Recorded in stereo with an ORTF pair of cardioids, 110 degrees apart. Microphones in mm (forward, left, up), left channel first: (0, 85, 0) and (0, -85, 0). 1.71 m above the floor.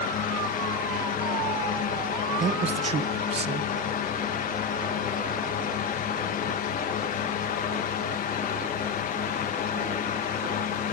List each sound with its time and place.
0.0 s a fan: 55° left, 1.9 m
2.4 s a man speaking: 35° right, 1.6 m